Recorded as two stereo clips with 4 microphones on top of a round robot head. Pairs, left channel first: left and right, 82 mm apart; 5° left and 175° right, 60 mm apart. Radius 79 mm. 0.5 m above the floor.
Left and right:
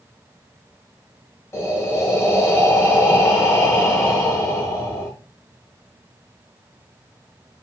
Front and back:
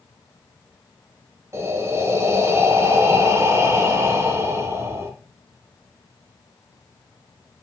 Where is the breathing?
145° left, 1.1 m.